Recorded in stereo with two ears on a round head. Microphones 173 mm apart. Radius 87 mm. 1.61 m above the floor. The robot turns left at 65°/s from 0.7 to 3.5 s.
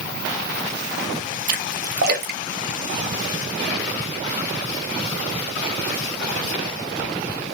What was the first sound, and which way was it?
A splash, 45° right (ahead or behind).